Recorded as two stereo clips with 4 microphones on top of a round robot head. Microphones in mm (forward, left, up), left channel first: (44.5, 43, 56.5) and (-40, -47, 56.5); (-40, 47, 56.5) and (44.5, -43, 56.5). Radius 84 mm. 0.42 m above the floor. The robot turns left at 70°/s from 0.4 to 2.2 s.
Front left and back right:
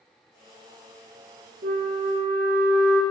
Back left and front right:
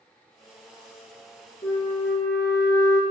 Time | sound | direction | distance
1.6 | a flute | 165° right | 0.6 m